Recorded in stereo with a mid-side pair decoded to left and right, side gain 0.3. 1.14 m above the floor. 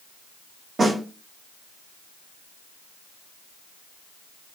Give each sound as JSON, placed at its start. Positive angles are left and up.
{"t": 0.8, "sound": "a snare drum", "azimuth_deg": -60, "distance_m": 1.5}